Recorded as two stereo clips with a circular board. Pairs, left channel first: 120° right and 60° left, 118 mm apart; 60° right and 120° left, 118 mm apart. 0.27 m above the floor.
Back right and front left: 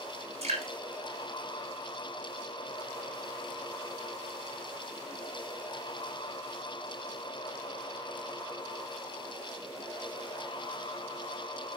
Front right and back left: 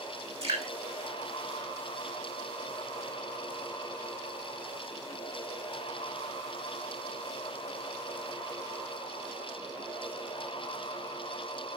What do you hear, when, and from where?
0.4 s dripping: 90° left, 6.5 m